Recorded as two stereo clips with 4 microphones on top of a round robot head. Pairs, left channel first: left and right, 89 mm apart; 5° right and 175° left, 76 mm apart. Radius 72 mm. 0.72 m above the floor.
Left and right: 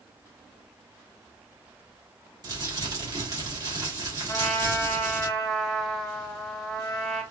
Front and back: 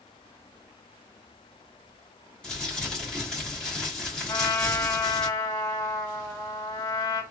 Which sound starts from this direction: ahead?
A trumpet, at 4.3 s.